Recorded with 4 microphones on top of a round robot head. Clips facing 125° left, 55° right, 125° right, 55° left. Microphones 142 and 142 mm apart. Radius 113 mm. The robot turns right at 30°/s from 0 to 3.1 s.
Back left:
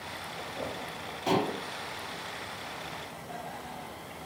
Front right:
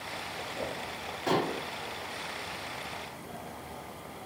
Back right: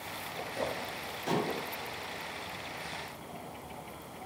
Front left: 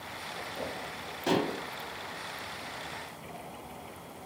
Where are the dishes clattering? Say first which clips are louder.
Back left 1 dB, front left 3 dB; 55° left, 1.1 m; by 1.6 s 65° left, 1.1 m.